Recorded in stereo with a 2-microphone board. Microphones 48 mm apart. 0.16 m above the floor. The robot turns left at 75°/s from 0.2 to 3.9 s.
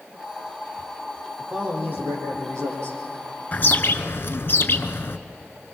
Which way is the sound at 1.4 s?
Straight ahead.